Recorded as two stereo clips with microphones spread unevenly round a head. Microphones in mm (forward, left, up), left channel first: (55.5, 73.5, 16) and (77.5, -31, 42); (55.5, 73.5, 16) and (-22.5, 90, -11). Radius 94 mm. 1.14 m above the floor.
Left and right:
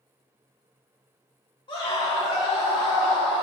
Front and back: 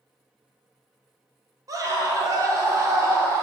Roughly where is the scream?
Behind left.